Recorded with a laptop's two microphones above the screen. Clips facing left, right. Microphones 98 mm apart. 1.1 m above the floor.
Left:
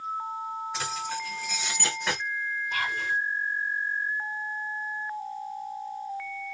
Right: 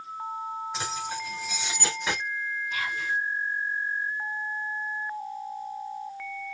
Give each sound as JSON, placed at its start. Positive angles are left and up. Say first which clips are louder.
{"t": 0.7, "sound": "keys jangling", "louder": "even", "side_deg": -20, "distance_m": 2.5}
{"t": 2.7, "sound": "whispering", "louder": "left 1 dB", "side_deg": 50, "distance_m": 1.2}